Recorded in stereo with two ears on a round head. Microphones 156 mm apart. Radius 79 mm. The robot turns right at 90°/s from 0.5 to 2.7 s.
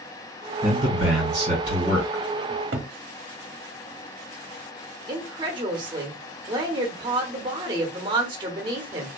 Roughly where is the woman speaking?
Right.